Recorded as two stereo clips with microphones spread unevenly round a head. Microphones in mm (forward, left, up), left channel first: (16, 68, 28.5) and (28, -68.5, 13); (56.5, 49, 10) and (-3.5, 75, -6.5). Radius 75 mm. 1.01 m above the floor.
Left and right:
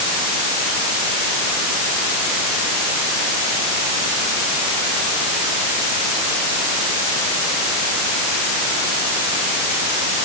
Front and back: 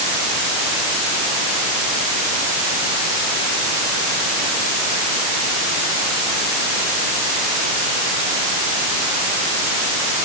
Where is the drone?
I don't hear a drone.